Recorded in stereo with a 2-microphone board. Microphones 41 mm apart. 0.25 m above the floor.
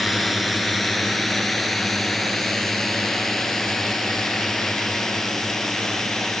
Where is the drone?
Centre (ahead or behind); by 6.4 s 10° left (ahead or behind).